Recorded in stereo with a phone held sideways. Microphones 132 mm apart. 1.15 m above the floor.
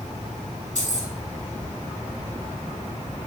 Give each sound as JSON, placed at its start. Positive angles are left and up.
{"t": 0.8, "sound": "keys jangling", "side_deg": 75, "distance_m": 4.5}